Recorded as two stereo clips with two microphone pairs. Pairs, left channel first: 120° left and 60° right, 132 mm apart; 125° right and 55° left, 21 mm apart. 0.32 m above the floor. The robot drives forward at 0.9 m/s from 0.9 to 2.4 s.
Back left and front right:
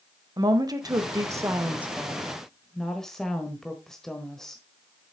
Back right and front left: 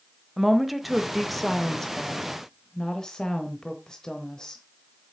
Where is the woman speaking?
20° right, 1.2 m; by 4.6 s 155° right, 1.1 m.